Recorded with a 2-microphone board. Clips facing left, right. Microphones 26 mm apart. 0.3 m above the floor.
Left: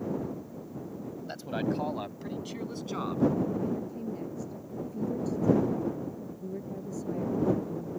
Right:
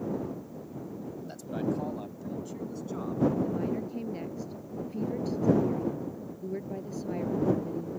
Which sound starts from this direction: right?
A woman speaking, at 3.4 s.